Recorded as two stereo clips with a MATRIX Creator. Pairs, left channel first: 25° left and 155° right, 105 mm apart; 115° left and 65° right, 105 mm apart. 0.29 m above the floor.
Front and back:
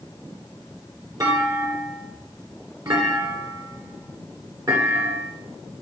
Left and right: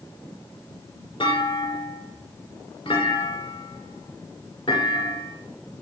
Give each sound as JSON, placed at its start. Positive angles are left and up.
{"t": 1.2, "sound": "a clunk", "azimuth_deg": 150, "distance_m": 2.0}